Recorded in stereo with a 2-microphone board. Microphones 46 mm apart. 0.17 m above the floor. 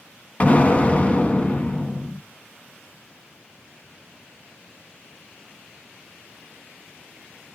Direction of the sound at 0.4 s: 35° left (ahead or behind).